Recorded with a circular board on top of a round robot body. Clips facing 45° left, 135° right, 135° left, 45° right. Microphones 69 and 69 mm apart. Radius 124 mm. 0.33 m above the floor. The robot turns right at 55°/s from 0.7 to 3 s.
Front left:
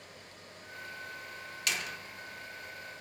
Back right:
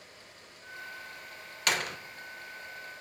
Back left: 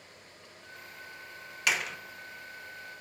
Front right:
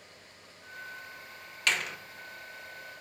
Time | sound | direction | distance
1.7 | a door slam | 145° right | 0.9 m